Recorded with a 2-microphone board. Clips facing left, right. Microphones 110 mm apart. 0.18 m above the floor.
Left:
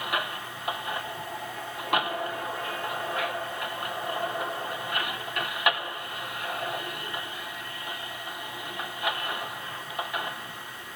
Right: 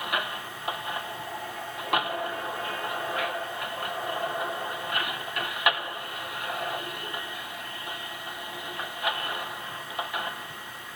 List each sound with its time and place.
Only background noise.